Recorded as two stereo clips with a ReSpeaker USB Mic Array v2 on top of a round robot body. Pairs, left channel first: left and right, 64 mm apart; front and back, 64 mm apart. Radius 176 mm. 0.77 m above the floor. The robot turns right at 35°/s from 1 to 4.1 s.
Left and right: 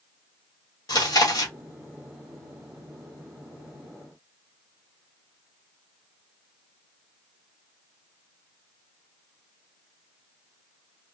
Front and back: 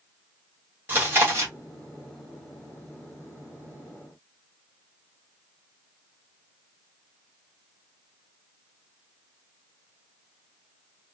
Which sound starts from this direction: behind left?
Chewing, at 0.9 s.